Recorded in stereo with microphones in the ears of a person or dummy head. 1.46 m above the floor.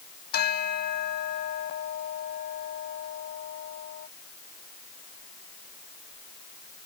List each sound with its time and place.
0.3 s a bell: 50° left (ahead or behind)